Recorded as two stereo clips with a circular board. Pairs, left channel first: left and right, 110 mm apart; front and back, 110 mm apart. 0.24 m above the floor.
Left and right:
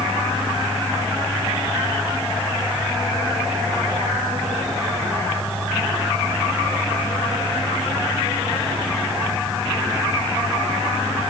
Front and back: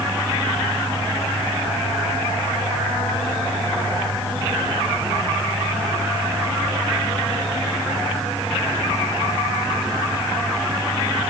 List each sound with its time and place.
Only background noise.